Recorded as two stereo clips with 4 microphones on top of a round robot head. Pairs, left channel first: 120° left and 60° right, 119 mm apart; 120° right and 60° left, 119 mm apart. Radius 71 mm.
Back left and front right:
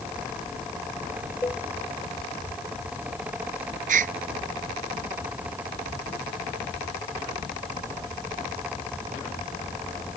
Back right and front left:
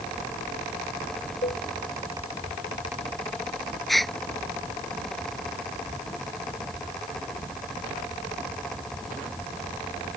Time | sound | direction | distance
1.4 | a cowbell | 165° right | ?
3.9 | a gasp | 35° right | ?